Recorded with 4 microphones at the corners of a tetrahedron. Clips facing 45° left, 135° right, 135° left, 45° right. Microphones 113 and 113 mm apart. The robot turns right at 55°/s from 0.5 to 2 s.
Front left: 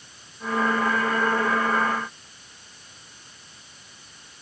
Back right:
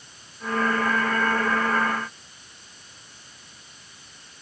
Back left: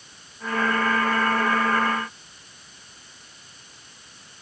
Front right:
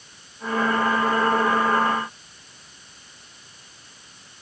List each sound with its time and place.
Only background noise.